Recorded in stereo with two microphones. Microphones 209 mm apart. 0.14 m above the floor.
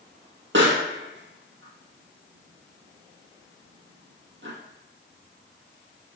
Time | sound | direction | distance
0.5 | a pop | 65° right (ahead or behind) | 1.9 m